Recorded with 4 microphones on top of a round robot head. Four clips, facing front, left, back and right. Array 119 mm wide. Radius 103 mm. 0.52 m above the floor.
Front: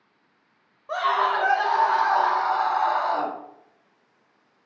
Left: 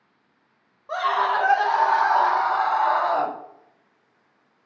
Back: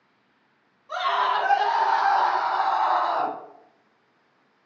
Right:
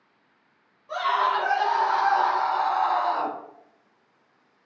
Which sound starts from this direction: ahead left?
A scream, at 0.9 s.